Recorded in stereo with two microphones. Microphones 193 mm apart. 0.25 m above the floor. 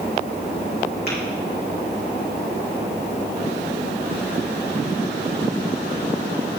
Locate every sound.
1.1 s tapping: 55° left (ahead or behind), 3.5 m